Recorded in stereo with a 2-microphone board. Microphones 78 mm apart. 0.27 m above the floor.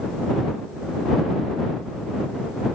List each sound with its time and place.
Only background noise.